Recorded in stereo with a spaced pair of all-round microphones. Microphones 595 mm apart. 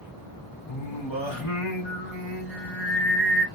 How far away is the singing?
About 1.4 m.